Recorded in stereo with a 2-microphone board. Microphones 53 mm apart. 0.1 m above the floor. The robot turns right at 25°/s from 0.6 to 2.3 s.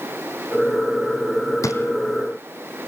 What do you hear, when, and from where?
1.6 s a drawer: 75° left (ahead or behind), 2.5 m